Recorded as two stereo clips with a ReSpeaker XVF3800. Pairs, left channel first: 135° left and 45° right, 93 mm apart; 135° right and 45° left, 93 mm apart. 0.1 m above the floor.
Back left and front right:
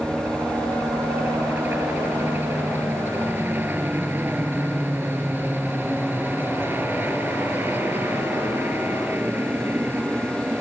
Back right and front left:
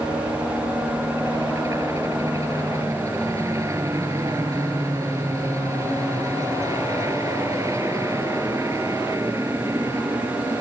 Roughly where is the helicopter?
Ahead.